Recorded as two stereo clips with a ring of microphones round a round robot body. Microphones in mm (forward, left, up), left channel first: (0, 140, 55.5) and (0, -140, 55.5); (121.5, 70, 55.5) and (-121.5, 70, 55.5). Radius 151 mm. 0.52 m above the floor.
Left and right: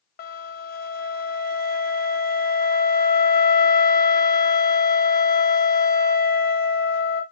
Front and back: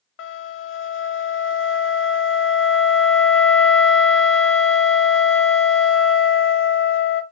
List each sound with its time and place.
0.2 s a flute: 35° left, 0.5 m